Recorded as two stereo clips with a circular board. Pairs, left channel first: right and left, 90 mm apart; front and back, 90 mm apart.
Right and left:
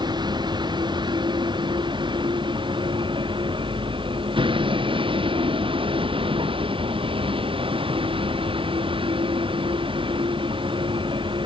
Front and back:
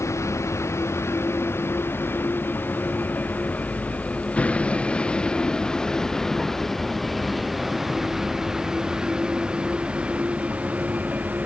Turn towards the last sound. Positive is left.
turn(degrees=110)